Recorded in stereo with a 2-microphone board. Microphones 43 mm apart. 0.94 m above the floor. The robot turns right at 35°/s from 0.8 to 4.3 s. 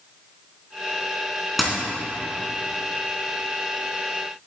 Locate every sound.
1.6 s a dropped coin: centre (ahead or behind), 2.5 m; by 1.8 s 10° right (ahead or behind), 2.5 m